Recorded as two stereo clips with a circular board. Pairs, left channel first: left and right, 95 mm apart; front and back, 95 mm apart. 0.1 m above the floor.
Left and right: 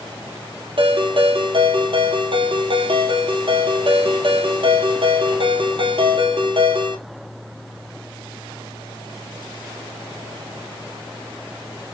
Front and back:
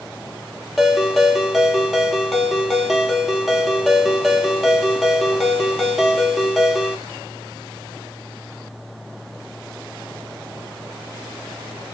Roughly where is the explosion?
I don't hear an explosion.